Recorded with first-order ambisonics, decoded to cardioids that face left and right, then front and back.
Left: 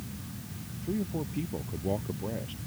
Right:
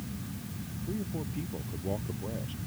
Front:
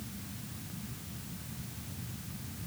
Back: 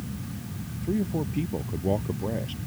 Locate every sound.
0.8 s a man speaking: 170° left